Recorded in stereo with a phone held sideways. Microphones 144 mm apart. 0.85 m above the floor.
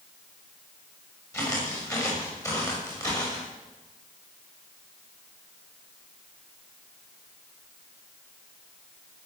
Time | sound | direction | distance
1.3 | footsteps | 20° left (ahead or behind) | 8.5 m